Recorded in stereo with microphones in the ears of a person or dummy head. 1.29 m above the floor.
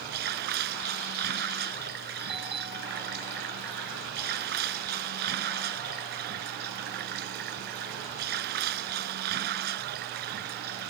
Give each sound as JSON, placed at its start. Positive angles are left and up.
{"t": 0.0, "sound": "running water", "side_deg": -60}
{"t": 2.2, "sound": "a doorbell", "side_deg": -30}